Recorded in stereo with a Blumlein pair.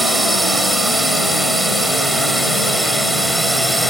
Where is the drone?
5° right; by 3.9 s straight ahead.